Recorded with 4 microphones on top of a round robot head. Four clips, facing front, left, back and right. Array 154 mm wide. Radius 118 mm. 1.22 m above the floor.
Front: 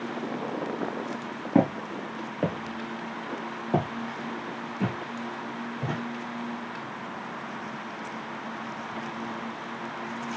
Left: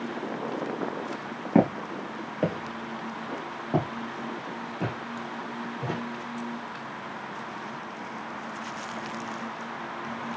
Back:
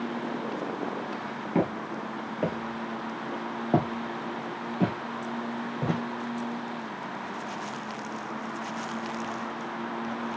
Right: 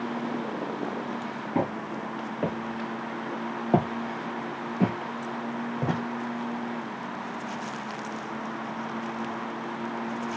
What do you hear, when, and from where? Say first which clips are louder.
1.6 s footsteps: left 6 dB, front 4 dB; 60° left, 1.5 m; by 6.0 s 120° right, 2.5 m